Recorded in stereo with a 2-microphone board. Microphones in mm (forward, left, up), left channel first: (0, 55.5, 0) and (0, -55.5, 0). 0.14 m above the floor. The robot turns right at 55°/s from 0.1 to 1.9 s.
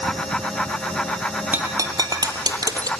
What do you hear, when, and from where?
1.5 s breaking glass: 15° right (ahead or behind), 1.5 m; by 2.9 s 35° right (ahead or behind), 1.5 m